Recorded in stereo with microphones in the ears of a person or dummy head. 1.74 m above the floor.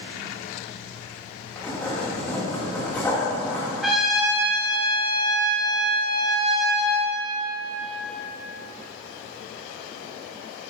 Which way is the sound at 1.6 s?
10° left (ahead or behind).